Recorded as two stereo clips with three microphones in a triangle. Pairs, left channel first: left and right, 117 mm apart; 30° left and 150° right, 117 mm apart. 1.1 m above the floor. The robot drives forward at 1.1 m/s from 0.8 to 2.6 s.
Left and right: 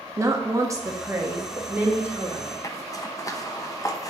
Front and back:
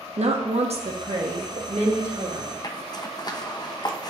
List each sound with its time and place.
0.2 s a woman speaking: 150° right, 1.2 m; by 2.5 s 170° right, 3 m
2.6 s a zipper: 50° left, 0.7 m